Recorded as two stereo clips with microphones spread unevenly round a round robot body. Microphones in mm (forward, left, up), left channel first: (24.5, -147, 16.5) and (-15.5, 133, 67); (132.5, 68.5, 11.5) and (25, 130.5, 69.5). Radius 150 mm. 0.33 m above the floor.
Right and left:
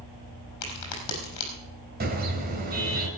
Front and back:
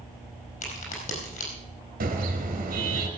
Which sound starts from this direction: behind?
A car horn, at 2.0 s.